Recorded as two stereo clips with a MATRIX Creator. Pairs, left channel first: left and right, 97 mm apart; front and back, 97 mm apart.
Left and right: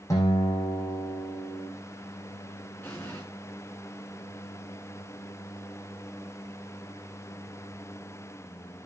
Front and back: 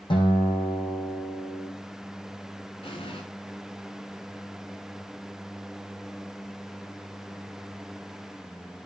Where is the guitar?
35° left, 7 m.